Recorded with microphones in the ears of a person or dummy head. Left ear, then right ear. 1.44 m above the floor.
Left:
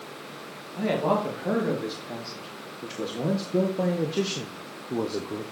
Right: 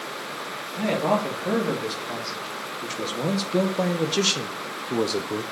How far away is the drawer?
I don't hear a drawer.